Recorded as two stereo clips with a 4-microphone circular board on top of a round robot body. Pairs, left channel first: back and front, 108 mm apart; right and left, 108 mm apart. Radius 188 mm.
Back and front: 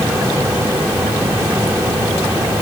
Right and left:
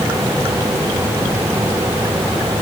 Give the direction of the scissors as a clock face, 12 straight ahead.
I don't hear scissors.